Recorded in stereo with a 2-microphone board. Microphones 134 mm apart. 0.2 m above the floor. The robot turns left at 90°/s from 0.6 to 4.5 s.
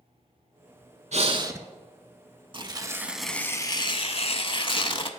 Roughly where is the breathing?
Behind right.